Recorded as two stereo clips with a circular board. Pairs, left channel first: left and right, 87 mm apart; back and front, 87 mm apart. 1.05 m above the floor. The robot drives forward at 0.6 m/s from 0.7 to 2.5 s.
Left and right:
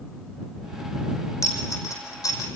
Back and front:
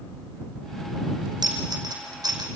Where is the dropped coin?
40° left, 5.5 m; by 2.5 s 45° left, 5 m.